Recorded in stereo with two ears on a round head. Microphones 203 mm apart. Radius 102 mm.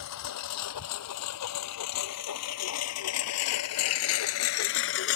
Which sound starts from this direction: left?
A lawn mower, at 0.0 s.